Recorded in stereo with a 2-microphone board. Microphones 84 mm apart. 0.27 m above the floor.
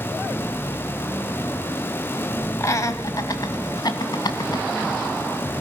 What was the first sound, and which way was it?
Laughter, 35° left (ahead or behind).